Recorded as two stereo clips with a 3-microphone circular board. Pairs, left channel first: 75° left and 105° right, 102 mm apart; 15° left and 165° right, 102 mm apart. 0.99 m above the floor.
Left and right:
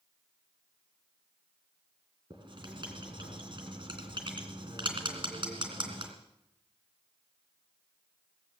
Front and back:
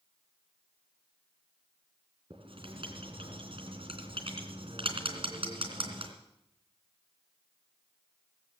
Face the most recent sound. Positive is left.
turn(degrees=-135)